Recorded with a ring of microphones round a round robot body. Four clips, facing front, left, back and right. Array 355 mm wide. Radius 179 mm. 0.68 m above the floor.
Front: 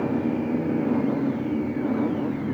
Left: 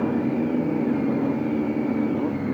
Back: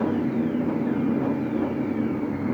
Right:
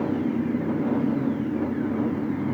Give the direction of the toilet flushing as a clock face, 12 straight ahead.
No toilet flushing in this recording.